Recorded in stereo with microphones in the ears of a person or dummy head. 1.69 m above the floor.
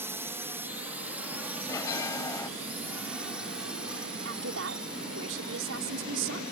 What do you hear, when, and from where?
0.0 s a drone: 10° right (ahead or behind); by 6.5 s 5° right (ahead or behind)
1.7 s a bell: 20° left (ahead or behind)
4.2 s a woman speaking: 75° right (ahead or behind)